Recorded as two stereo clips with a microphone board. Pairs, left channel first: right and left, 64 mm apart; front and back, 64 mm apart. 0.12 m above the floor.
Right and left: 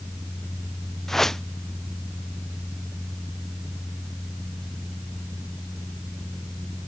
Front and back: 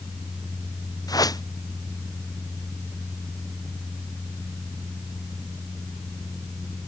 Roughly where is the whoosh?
Ahead.